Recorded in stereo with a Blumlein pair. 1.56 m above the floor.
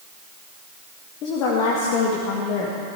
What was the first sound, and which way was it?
A woman speaking, 35° left.